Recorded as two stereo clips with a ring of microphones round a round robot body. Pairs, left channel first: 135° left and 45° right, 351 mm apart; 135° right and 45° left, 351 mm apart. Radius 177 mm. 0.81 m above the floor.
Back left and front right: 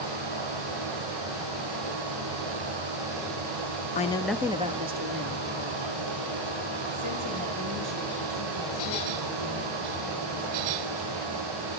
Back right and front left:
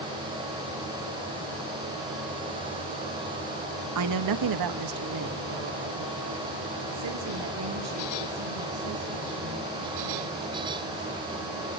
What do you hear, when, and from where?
4.0 s a woman speaking: 75° left, 1.2 m; by 11.3 s 10° right, 9.5 m